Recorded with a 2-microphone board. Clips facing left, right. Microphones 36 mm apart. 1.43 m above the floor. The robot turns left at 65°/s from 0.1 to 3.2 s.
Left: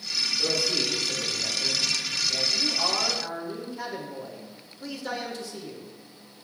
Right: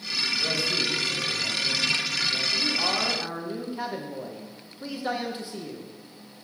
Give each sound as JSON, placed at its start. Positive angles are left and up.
{"t": 0.4, "sound": "a man speaking", "azimuth_deg": 145, "distance_m": 4.0}
{"t": 2.5, "sound": "a man speaking", "azimuth_deg": 20, "distance_m": 1.3}